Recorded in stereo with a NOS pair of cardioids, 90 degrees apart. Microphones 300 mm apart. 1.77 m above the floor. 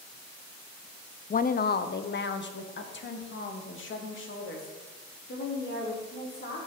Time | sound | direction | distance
1.3 | a woman speaking | 25° left | 0.6 m